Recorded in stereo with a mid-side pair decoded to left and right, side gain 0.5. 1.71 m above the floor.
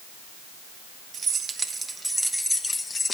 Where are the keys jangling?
50° right, 2.0 m; by 3.1 s 30° left, 2.0 m.